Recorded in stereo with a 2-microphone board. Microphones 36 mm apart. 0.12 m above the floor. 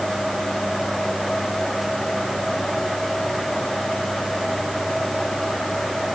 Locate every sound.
Only background noise.